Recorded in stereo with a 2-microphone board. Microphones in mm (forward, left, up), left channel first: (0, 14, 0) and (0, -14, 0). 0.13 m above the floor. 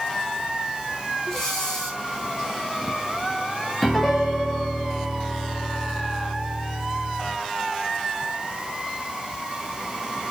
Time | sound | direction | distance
1.2 | breathing | 20° left (ahead or behind) | 5.5 m
3.8 | a piano | 5° left (ahead or behind) | 6.5 m